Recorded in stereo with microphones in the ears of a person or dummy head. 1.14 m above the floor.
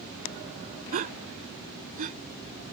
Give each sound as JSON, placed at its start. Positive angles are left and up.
{"t": 0.9, "sound": "a gasp", "side_deg": -40}